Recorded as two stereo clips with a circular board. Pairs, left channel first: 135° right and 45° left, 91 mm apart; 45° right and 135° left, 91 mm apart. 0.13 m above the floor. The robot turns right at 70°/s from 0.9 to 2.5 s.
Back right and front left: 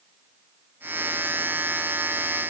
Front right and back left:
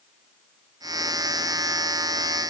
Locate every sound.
Only background noise.